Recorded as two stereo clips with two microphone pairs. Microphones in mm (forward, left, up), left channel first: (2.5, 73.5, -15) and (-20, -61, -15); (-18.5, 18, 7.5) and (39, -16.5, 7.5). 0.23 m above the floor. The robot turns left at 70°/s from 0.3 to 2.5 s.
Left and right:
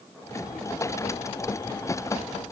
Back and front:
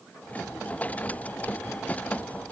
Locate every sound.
Only background noise.